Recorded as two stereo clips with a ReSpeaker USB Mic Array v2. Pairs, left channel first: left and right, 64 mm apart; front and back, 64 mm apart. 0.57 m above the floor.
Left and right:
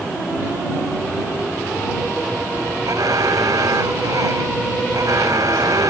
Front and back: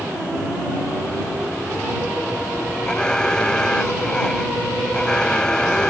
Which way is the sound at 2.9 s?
80° right.